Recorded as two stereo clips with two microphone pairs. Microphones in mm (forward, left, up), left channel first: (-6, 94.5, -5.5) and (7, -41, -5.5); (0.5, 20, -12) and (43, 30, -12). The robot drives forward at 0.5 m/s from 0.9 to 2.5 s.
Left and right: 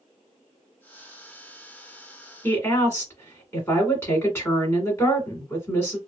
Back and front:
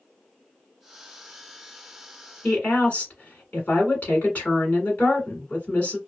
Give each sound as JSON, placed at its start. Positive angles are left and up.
{"t": 2.4, "sound": "a woman speaking", "azimuth_deg": 160, "distance_m": 1.7}